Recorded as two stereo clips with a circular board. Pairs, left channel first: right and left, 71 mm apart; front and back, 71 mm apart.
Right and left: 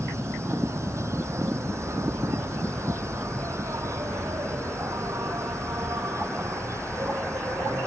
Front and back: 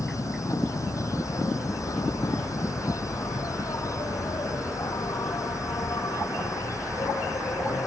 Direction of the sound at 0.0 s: 40° left.